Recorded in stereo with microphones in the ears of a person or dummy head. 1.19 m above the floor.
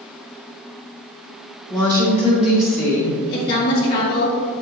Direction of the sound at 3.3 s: 50° left (ahead or behind).